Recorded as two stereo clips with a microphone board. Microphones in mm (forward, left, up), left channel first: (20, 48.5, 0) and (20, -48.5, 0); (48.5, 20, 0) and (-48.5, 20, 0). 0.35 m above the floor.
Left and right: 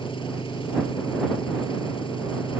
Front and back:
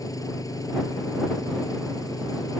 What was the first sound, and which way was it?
An engine running, 55° left.